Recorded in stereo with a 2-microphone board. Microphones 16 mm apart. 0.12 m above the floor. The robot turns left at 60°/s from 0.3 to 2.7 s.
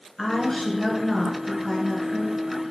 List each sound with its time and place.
0.2 s a woman speaking: 95° left, 1.8 m; by 2.4 s 30° right, 1.8 m